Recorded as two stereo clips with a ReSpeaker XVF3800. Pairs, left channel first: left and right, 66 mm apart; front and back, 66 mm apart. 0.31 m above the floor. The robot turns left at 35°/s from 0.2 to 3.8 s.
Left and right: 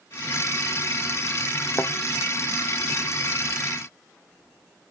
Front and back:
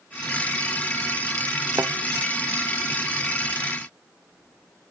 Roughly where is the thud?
Behind left.